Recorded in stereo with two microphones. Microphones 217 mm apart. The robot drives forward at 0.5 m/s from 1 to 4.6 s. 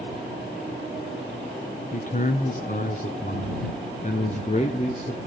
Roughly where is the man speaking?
Left.